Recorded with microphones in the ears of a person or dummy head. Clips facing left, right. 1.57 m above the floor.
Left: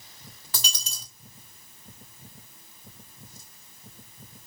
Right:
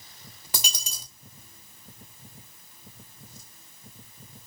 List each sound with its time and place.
0.5 s a dropped coin: 20° right (ahead or behind), 1.0 m